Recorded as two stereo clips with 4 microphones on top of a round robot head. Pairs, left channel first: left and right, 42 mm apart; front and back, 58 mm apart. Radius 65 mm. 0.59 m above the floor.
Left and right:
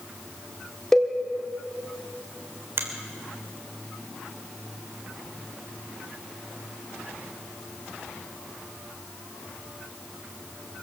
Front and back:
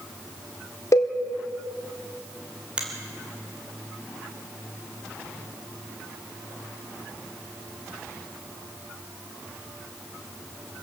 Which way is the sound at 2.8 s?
110° right.